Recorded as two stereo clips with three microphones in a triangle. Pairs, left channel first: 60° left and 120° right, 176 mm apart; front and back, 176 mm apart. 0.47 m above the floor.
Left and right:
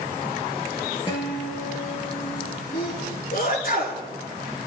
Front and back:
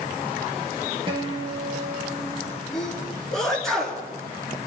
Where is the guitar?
120° left, 3.5 m.